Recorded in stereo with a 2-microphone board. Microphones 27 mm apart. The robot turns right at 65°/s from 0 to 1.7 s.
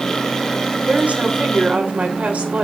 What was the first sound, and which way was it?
A woman speaking, 130° right.